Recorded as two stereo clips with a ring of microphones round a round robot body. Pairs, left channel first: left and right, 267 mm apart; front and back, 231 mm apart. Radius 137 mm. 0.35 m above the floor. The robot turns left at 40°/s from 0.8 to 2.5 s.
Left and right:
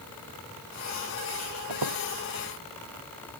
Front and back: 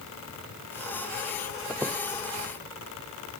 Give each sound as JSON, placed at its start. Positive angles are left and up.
{"t": 1.7, "sound": "a squeak", "azimuth_deg": -90}